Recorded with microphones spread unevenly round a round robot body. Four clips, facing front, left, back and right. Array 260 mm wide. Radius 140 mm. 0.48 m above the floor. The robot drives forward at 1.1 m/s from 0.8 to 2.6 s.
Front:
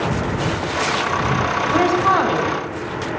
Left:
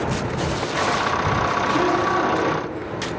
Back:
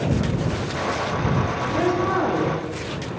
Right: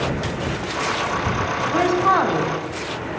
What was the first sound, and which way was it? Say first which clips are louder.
A woman speaking: right 5 dB, front 5 dB; 25° right.